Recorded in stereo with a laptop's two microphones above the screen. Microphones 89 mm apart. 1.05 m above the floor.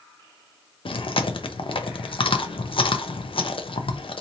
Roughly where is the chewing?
Left.